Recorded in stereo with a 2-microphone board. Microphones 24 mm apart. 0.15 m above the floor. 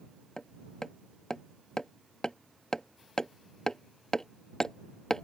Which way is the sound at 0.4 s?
30° left (ahead or behind).